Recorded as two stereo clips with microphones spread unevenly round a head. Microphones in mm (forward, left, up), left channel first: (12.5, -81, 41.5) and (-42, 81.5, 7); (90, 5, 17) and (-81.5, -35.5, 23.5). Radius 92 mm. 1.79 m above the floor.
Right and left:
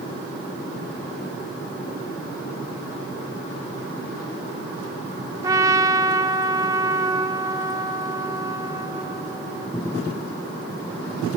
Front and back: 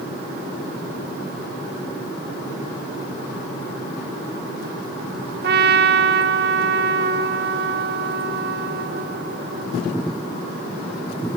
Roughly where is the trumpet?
Behind.